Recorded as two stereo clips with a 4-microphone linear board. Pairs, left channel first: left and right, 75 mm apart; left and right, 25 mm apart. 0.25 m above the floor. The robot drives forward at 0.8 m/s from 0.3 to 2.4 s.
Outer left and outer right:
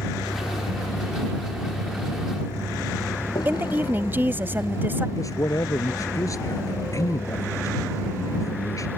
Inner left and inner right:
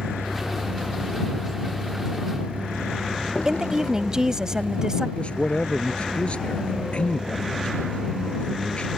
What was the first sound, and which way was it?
A vehicle, 85° left.